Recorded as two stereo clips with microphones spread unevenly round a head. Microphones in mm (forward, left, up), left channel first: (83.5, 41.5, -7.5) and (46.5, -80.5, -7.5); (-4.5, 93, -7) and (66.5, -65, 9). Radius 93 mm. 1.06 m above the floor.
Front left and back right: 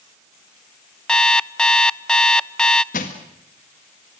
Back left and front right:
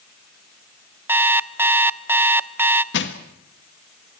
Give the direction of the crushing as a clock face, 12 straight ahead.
8 o'clock.